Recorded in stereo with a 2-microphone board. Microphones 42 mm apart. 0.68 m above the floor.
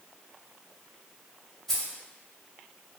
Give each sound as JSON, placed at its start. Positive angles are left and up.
{"t": 1.7, "sound": "keys jangling", "side_deg": 5, "distance_m": 1.2}